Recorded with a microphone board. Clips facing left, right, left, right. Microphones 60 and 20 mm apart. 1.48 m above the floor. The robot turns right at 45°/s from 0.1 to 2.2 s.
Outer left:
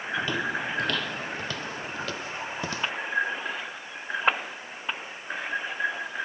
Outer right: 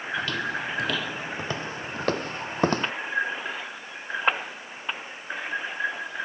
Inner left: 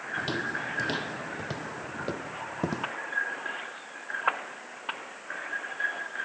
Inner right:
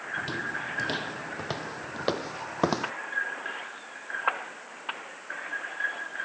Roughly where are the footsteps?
Centre.